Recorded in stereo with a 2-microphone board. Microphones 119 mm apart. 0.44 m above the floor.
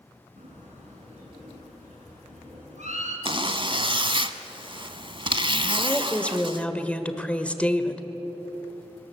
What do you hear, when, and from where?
0.4 s a bird: 75° right (ahead or behind), 5.5 m
3.2 s a zipper: 45° right (ahead or behind), 0.9 m
5.8 s a woman speaking: 10° left (ahead or behind), 1.4 m